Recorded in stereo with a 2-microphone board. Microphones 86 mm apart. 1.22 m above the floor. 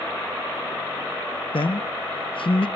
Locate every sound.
1.5 s a man speaking: 85° left, 0.6 m